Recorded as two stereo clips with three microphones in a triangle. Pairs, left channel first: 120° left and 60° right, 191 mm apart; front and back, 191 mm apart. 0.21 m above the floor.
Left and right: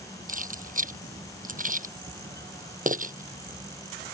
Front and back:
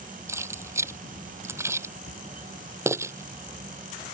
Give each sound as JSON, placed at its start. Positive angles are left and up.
{"t": 0.3, "sound": "keys jangling", "azimuth_deg": -105}